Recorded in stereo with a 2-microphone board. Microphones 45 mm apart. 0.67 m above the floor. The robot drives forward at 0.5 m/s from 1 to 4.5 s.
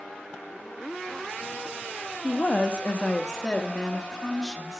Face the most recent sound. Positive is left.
turn(degrees=10)  # may be behind; listen again after turning